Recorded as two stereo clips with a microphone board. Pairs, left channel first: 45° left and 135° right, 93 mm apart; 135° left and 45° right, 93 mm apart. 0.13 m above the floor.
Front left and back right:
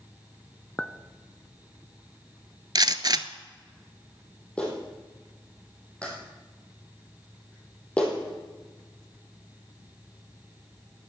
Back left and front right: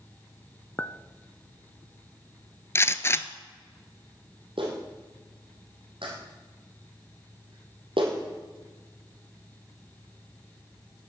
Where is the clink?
105° left, 0.6 m.